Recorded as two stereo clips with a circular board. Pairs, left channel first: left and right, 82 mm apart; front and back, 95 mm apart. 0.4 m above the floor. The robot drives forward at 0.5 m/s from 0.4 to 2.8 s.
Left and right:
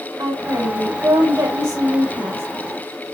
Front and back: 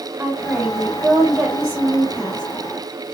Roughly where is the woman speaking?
Right.